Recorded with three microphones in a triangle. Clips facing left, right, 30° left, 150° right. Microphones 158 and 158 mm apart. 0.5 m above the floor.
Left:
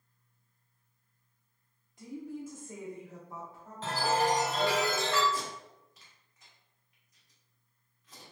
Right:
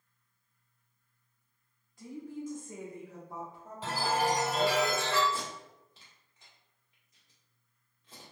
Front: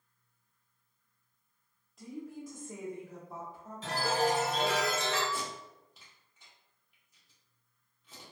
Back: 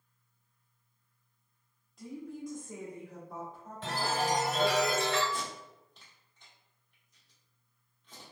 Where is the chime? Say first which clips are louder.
Left 1 dB, front 2 dB; 170° right, 1.0 m.